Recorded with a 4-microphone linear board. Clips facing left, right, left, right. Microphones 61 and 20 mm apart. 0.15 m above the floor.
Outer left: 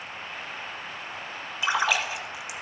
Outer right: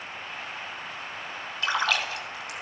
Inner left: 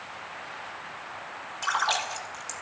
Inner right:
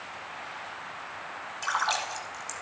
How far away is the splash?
About 1.3 m.